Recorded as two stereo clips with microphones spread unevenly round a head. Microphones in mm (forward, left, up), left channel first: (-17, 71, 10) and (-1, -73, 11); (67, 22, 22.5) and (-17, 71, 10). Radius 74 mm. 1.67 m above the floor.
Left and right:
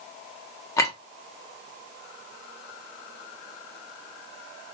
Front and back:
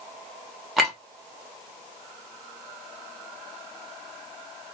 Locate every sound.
0.8 s a clink: 45° left, 0.9 m